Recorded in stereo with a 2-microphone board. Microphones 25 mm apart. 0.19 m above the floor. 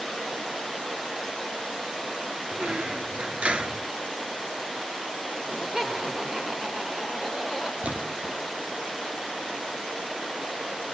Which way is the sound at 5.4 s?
20° right (ahead or behind).